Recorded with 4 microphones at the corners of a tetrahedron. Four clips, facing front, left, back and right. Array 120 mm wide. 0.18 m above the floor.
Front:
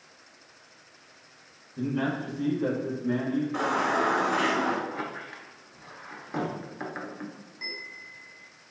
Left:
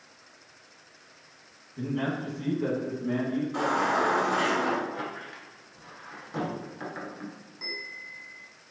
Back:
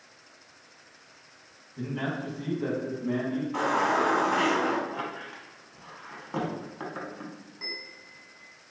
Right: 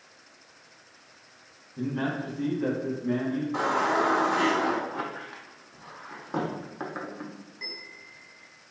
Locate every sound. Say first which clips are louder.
1.8 s a man speaking: even, front 4 dB; 60° right, 1.3 m; by 3.4 s 155° left, 1.7 m
3.5 s a baby crying: right 1 dB, back 3 dB; 105° right, 1.1 m
4.9 s a squeak: right 1 dB, even; 105° right, 0.7 m
7.6 s a bell: left 4 dB, front 3 dB; 140° left, 0.6 m